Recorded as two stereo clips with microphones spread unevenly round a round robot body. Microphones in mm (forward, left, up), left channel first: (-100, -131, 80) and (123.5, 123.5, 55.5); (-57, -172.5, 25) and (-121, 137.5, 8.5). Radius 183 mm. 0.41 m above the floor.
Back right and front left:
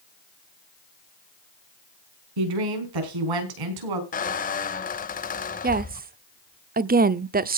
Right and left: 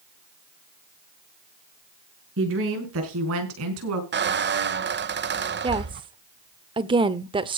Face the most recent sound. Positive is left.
turn(degrees=50)